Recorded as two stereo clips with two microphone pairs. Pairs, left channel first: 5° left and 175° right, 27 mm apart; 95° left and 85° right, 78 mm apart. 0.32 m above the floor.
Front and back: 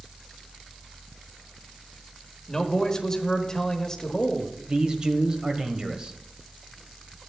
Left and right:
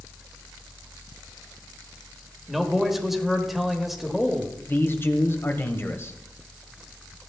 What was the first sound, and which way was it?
A man speaking, 5° right.